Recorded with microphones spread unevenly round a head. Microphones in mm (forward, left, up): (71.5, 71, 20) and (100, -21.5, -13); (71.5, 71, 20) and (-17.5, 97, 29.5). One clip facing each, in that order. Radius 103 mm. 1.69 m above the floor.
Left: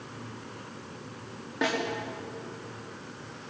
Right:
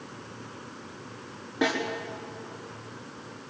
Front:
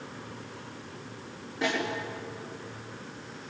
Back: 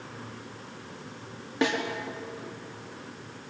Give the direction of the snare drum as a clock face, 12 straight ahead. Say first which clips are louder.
Right 2 dB, back 3 dB; 5 o'clock.